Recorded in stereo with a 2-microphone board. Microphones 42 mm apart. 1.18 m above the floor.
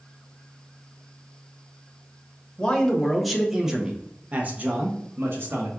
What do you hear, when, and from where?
2.6 s a man speaking: 15° left (ahead or behind), 1.2 m; by 5.7 s 65° right (ahead or behind), 1.4 m